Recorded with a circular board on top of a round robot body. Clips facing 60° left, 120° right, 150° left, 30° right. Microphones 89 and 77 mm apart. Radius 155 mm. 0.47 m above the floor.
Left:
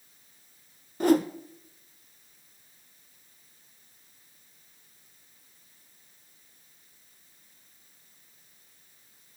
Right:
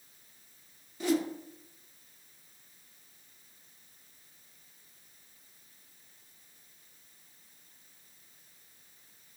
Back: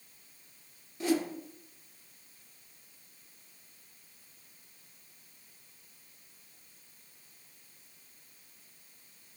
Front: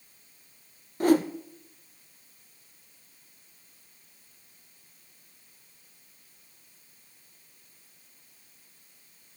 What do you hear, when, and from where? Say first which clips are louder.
1.0 s a whoosh: left 7 dB, front 8 dB; 15° left, 0.6 m